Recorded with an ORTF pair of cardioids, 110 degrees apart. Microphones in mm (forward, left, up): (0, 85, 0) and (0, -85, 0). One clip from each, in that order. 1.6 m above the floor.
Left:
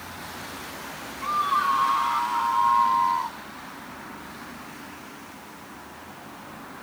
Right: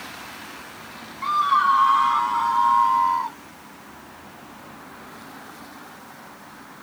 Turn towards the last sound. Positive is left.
turn(degrees=-20)